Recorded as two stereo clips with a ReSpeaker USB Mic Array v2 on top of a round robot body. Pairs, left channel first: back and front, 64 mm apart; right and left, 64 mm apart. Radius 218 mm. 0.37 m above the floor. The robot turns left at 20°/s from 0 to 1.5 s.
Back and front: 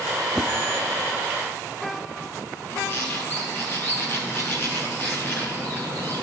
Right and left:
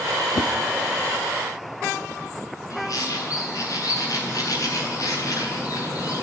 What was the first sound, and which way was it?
A whoosh, 95° right.